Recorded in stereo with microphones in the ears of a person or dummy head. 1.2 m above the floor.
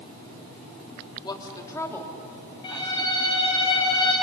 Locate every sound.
1.2 s a woman speaking: 25° left (ahead or behind), 3 m; by 3.5 s 5° right (ahead or behind), 3 m
2.6 s a violin: 25° left (ahead or behind), 7.5 m